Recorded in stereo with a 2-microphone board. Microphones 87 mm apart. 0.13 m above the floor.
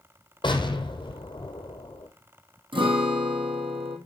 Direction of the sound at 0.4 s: 65° left (ahead or behind).